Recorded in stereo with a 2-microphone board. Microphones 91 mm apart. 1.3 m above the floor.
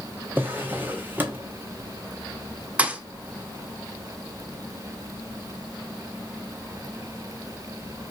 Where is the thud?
15° right (ahead or behind), 0.5 m.